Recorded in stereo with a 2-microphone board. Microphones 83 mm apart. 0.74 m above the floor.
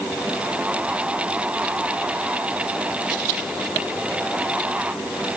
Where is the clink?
I don't hear a clink.